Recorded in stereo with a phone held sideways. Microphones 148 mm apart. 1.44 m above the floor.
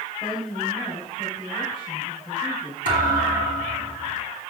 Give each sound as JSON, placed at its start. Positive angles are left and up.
{"t": 0.2, "sound": "a woman speaking", "side_deg": 40, "distance_m": 7.0}
{"t": 2.9, "sound": "a thud", "side_deg": 70, "distance_m": 6.0}